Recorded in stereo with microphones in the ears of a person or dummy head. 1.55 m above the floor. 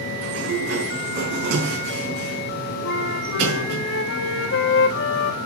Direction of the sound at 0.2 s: 70° right (ahead or behind).